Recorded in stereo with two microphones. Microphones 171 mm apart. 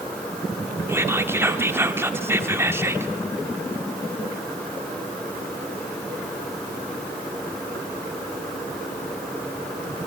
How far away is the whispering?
About 0.9 m.